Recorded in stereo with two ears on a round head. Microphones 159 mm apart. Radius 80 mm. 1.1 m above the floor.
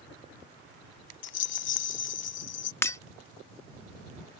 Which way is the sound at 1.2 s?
70° left (ahead or behind).